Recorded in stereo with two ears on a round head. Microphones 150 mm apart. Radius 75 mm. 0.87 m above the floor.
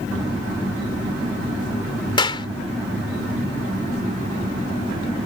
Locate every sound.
2.2 s a clap: 30° left (ahead or behind)